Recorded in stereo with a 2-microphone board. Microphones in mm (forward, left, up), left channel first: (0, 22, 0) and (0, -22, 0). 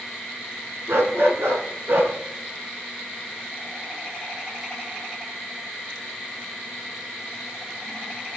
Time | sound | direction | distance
0.9 | a dog barking | 75° right (ahead or behind) | 2.5 m